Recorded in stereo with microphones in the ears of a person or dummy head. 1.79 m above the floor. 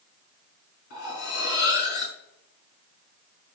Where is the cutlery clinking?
55° left (ahead or behind), 5.5 m.